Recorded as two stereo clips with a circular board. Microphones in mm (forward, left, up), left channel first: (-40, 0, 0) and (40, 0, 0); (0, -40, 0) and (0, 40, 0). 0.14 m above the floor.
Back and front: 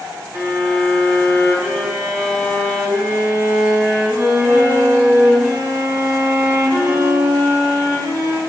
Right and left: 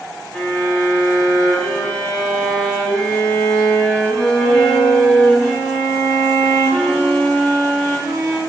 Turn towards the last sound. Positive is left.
turn(degrees=-5)